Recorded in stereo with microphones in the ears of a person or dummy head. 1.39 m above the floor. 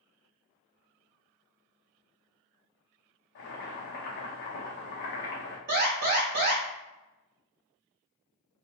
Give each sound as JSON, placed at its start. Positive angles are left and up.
{"t": 3.4, "sound": "boiling", "side_deg": 55, "distance_m": 0.8}
{"t": 5.7, "sound": "an alarm", "side_deg": -50, "distance_m": 1.4}